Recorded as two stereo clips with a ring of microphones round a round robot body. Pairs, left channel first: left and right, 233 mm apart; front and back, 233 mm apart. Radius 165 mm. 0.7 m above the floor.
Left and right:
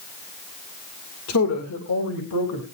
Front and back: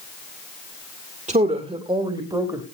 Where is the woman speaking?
120° left, 2 m; by 2.6 s 105° left, 3.5 m.